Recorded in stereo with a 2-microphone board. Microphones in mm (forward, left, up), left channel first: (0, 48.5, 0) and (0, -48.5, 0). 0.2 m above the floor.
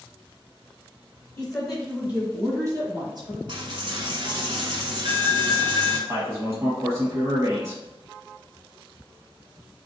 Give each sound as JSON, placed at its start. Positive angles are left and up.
{"t": 1.4, "sound": "a woman speaking", "side_deg": 15, "distance_m": 1.3}
{"t": 3.5, "sound": "a dropped coin", "side_deg": -60, "distance_m": 1.0}
{"t": 6.1, "sound": "a man speaking", "side_deg": -35, "distance_m": 1.2}